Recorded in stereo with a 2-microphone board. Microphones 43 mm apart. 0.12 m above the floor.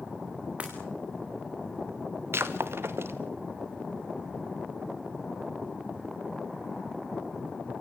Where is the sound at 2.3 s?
65° right (ahead or behind), 2 m.